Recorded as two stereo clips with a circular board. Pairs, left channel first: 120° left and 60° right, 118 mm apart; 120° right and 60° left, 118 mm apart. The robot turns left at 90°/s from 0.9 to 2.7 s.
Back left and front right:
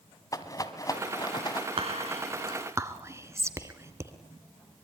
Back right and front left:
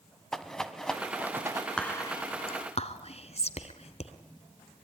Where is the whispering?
40° right, 2 m; by 4.1 s 120° right, 2 m.